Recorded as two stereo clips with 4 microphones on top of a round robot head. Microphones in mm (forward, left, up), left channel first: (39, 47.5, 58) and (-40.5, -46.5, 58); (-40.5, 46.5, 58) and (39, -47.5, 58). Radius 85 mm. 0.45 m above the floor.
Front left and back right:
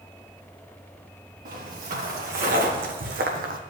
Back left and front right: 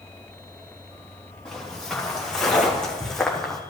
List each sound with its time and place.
1.4 s footsteps: 145° right, 3 m